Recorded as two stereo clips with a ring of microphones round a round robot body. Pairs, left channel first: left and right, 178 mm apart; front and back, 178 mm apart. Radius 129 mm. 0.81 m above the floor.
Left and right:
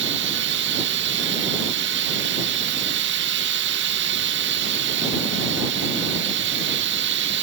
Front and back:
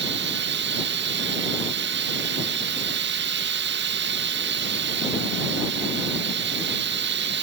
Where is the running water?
135° right.